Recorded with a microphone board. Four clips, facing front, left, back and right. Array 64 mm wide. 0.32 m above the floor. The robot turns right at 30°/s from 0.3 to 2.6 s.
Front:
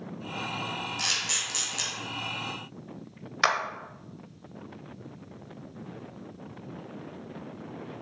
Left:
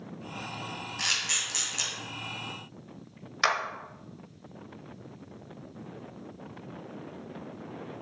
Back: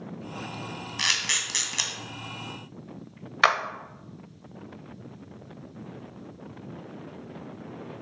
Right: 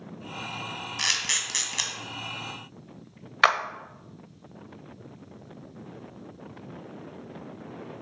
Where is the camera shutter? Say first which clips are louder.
Right 3 dB, back 4 dB; 155° right, 1.8 m; by 1.9 s 125° right, 1.8 m.